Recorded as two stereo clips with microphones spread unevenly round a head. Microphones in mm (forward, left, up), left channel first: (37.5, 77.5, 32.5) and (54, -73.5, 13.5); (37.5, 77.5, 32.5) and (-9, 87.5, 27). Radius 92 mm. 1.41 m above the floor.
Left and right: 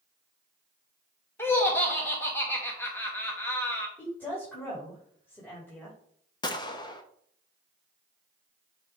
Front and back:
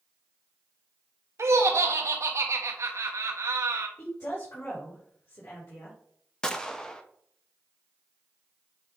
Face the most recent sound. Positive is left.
turn(degrees=50)